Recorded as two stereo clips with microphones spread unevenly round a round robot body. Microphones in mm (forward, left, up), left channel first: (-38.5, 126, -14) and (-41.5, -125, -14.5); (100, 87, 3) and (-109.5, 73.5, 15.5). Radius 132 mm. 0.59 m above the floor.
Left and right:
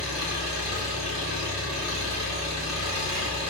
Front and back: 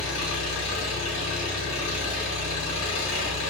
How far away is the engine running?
About 1.6 m.